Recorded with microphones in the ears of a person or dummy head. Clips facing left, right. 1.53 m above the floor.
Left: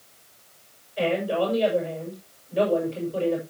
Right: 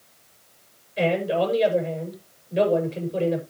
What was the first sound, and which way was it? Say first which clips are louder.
A man speaking: right 2 dB; 25° right (ahead or behind).